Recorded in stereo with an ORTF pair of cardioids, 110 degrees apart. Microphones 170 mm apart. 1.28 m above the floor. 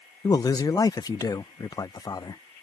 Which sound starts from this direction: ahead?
A man speaking, at 0.2 s.